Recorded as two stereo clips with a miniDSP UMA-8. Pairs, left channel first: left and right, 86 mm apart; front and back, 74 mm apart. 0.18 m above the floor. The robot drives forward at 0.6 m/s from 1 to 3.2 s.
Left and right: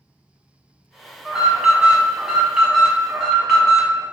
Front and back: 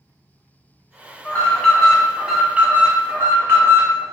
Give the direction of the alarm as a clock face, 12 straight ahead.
1 o'clock.